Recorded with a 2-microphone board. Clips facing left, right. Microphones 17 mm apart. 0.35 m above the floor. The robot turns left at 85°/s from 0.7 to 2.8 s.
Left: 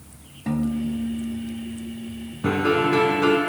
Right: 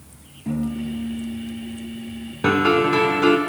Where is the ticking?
No ticking in this recording.